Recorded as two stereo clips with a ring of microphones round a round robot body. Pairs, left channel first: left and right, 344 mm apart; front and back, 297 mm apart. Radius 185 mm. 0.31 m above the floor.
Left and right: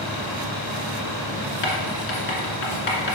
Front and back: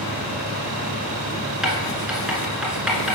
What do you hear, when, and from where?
1.6 s writing: 90° left, 1.8 m